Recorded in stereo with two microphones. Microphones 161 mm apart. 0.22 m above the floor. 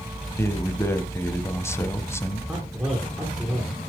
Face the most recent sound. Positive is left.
turn(degrees=-15)  # may be behind; listen again after turning